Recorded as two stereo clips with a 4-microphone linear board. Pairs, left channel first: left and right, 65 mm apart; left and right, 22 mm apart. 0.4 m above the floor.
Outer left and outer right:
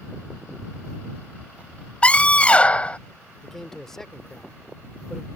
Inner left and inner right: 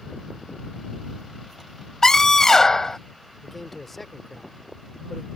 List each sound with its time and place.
2.0 s a scream: 20° left (ahead or behind)
3.4 s a man speaking: 10° left (ahead or behind)